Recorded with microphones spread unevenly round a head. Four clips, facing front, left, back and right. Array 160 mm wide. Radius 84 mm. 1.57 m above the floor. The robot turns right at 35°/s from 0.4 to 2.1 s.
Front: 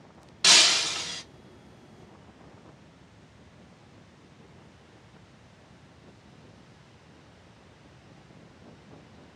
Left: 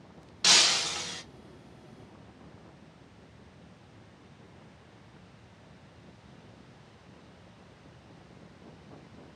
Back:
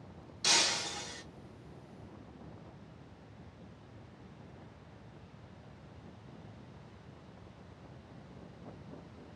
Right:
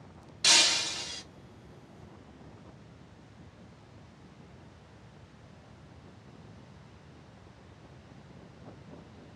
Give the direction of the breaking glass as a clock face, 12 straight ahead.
11 o'clock.